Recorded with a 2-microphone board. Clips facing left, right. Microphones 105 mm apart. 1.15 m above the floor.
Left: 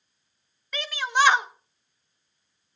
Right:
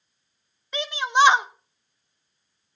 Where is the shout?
20° right (ahead or behind), 1.2 m.